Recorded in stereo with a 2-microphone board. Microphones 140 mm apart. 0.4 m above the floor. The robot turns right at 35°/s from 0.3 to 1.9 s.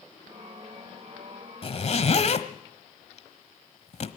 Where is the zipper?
40° left (ahead or behind), 1.2 m; by 4.1 s 50° left (ahead or behind), 1.2 m.